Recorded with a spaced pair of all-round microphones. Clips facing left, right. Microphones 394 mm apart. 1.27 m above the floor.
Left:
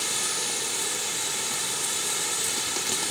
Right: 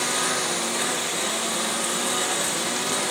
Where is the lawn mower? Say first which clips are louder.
Right 8 dB; 80° right.